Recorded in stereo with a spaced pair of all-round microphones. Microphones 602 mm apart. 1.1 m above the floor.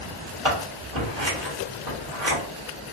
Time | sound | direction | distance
0.5 | scissors | 45° right (ahead or behind) | 1.8 m